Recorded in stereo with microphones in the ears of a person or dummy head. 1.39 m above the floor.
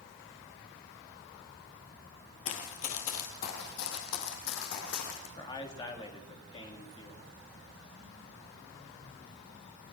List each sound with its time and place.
2.5 s running footsteps: 40° left (ahead or behind), 2.0 m; by 5.3 s 65° left (ahead or behind), 5 m
5.4 s a man speaking: 30° left (ahead or behind), 3.5 m